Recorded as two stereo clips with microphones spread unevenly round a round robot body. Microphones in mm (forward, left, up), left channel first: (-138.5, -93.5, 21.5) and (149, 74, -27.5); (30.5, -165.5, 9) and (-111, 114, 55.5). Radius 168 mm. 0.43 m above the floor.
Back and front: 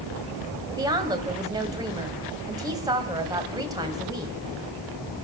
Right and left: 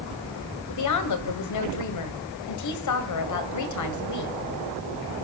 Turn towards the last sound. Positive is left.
turn(degrees=-45)